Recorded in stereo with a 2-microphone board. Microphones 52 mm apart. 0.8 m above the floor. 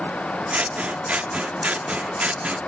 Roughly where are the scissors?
Right.